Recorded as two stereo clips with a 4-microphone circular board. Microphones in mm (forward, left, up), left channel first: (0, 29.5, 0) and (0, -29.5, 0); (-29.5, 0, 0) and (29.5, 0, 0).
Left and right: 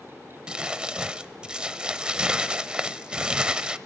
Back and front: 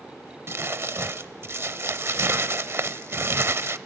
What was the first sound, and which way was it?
Crumpling, 20° right.